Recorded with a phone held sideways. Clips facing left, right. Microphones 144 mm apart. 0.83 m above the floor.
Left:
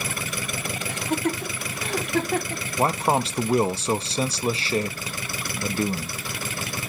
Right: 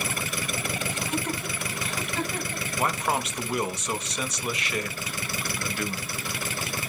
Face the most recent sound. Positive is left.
turn(degrees=35)  # may be behind; listen again after turning